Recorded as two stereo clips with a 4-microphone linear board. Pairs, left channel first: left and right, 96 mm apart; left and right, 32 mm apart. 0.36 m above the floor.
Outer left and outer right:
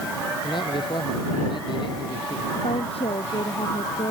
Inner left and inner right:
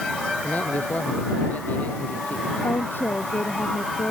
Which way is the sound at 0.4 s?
55° left (ahead or behind).